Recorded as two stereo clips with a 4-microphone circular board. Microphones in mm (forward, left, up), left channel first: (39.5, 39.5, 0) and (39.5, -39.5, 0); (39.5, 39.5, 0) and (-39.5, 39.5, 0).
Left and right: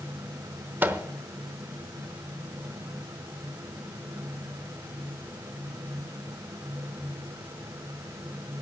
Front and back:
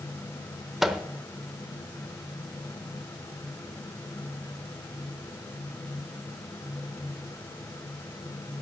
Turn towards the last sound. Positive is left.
turn(degrees=-95)